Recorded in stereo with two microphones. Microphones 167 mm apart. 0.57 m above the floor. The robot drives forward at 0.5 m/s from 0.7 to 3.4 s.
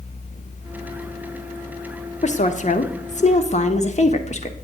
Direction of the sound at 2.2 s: 45° left (ahead or behind).